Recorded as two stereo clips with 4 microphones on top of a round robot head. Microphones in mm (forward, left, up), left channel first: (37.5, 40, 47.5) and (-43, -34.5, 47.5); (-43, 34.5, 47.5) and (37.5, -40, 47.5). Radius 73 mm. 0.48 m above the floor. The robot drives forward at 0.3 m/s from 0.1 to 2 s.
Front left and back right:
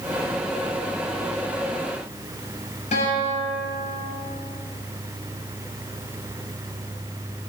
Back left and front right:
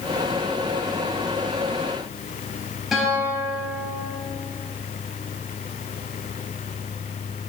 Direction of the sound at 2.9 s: 45° left.